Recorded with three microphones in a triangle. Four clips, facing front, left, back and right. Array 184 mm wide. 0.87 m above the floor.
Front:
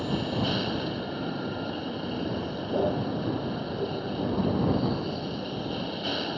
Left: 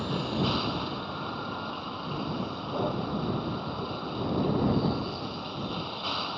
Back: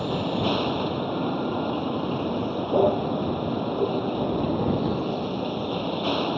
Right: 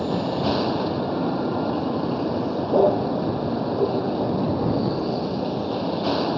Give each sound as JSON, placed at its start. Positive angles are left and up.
{"t": 0.0, "sound": "a vehicle", "azimuth_deg": -110}